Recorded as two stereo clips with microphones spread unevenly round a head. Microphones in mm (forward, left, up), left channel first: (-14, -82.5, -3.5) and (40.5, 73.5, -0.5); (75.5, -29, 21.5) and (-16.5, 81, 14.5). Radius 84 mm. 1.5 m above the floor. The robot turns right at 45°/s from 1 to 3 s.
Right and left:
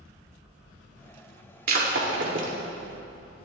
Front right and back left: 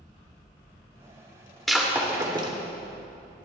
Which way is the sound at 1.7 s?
40° left.